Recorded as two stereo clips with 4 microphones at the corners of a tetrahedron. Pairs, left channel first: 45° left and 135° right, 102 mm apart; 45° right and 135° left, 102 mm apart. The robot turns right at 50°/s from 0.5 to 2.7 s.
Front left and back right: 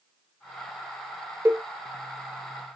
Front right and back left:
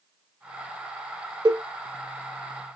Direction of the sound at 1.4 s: 160° left.